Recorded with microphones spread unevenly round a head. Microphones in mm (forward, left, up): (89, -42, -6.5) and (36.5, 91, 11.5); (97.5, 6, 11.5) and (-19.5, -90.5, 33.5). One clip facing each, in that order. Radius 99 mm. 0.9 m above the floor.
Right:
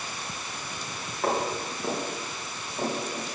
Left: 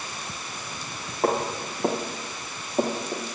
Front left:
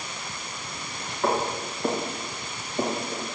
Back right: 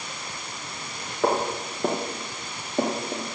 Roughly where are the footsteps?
Behind.